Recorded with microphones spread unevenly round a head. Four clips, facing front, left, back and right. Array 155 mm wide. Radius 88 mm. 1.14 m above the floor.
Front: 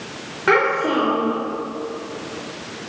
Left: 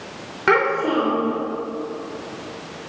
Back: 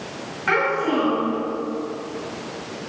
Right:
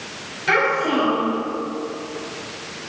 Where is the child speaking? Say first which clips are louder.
Left 1 dB, front 3 dB; 45° left, 3.5 m.